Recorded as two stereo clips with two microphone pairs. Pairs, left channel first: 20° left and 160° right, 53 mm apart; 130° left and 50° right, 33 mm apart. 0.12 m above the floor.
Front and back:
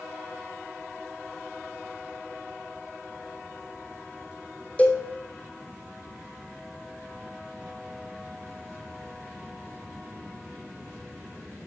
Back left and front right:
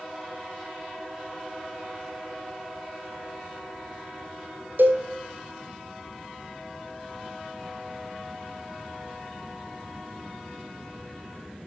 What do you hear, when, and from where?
4.8 s a cowbell: 45° right, 1.2 m